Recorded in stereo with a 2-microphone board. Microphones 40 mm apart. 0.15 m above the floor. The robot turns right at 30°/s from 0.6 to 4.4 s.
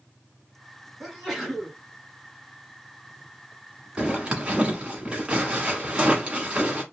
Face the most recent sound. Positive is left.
turn(degrees=-25)  # may be behind; listen again after turning